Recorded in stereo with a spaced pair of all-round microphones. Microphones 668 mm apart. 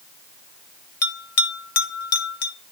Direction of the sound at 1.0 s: 55° left (ahead or behind).